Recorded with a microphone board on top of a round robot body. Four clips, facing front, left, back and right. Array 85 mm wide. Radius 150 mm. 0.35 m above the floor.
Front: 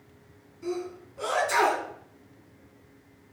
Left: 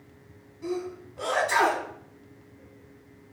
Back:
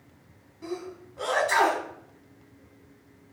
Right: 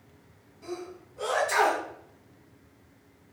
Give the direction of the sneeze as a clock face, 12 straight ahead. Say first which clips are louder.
Left 6 dB, front 3 dB; 7 o'clock.